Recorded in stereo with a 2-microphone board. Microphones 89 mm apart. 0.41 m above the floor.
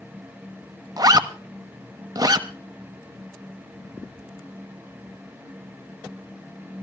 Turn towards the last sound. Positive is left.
turn(degrees=-50)  # may be behind; listen again after turning